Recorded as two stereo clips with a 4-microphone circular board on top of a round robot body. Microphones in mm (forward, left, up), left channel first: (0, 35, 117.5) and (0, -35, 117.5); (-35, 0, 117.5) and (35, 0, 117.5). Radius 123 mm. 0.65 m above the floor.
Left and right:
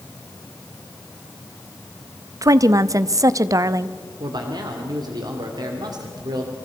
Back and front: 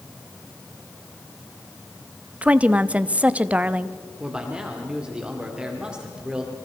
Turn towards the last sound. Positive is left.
turn(degrees=-75)